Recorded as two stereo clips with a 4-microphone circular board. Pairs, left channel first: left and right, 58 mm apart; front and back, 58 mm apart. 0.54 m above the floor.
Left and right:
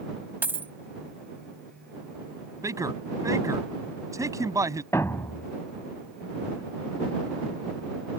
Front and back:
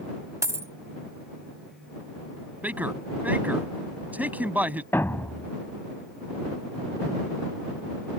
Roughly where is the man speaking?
Behind right.